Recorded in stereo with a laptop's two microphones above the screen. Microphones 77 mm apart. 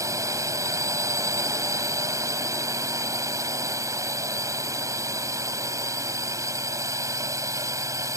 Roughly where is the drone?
Right.